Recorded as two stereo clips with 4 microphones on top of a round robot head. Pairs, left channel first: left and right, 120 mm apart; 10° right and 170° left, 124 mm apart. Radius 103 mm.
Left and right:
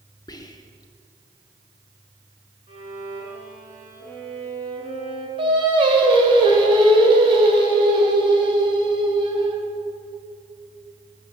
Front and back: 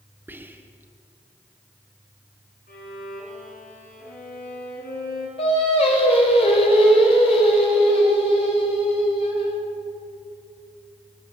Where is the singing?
45° right, 2 m.